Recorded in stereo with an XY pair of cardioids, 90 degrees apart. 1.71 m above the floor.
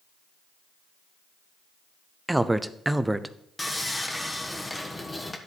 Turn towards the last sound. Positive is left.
turn(degrees=10)